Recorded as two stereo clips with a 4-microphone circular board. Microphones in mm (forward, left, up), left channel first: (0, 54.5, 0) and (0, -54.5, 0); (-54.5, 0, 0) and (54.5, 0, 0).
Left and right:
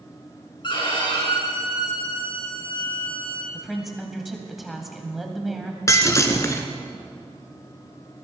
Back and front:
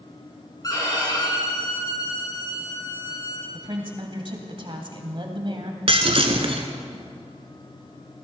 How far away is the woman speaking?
About 2 m.